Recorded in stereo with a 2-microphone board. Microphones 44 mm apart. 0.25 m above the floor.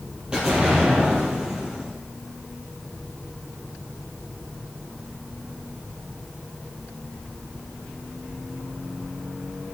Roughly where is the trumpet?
No trumpet in this recording.